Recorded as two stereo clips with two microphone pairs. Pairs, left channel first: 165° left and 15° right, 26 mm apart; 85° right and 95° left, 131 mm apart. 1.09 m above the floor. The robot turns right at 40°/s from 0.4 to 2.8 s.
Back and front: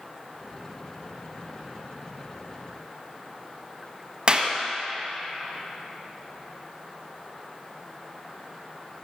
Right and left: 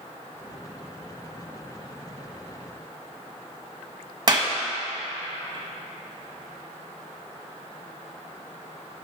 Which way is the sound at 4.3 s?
40° left.